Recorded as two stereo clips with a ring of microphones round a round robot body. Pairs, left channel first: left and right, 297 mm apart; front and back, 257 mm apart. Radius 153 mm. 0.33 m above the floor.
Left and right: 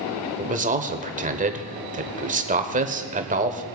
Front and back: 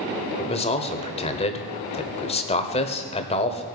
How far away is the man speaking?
About 1.1 m.